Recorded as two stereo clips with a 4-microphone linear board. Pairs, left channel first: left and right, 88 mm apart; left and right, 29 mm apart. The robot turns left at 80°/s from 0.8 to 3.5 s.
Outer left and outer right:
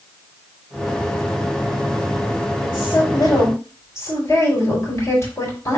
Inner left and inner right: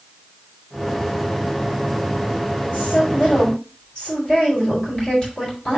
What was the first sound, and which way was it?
A woman speaking, 105° left.